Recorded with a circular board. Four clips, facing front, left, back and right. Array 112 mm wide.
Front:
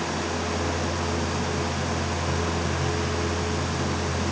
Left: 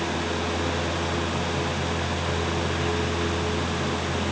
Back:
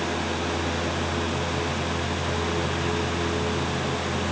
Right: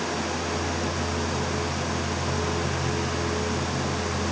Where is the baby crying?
No baby crying in this recording.